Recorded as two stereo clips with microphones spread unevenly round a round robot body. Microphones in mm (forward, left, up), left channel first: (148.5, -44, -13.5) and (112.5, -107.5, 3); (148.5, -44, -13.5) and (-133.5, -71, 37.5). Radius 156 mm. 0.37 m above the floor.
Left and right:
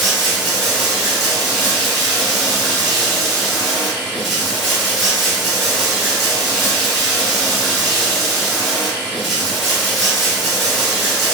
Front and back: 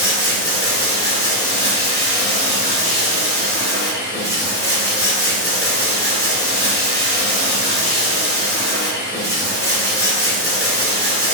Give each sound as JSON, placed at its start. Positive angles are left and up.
{"t": 0.0, "sound": "running water", "azimuth_deg": 5, "distance_m": 1.0}